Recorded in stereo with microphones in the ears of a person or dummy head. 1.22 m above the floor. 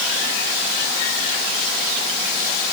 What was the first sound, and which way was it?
Only background noise.